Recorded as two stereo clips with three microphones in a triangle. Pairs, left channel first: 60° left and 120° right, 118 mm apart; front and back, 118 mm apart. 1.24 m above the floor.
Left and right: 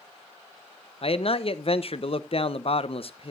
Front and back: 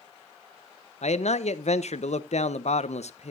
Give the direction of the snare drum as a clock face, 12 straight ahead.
No snare drum in this recording.